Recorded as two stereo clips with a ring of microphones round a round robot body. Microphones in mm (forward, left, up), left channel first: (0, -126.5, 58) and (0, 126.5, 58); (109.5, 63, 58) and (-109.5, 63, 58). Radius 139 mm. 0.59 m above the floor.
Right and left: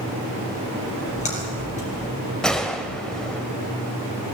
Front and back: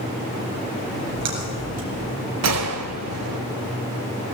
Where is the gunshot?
175° right, 0.7 m.